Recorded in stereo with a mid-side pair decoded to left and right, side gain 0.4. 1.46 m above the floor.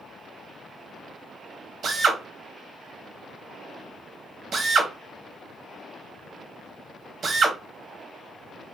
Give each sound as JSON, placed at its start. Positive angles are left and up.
{"t": 1.8, "sound": "a drill", "azimuth_deg": -60, "distance_m": 0.8}